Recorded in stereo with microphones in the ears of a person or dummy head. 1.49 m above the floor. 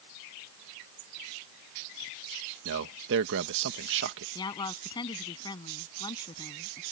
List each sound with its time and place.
2.6 s a man speaking: 60° right (ahead or behind)
4.3 s a woman speaking: 20° left (ahead or behind)